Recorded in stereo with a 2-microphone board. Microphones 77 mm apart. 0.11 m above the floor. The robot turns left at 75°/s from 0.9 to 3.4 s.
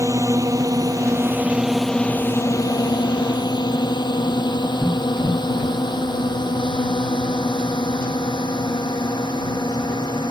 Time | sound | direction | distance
0.0 | a drone | 40° right (ahead or behind) | ?